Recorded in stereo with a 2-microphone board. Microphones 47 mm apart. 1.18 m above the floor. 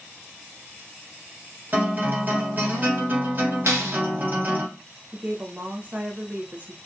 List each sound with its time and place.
1.7 s a guitar: 40° right (ahead or behind), 1.2 m
3.7 s a clap: 80° right, 0.8 m
5.1 s a woman speaking: 30° right (ahead or behind), 0.6 m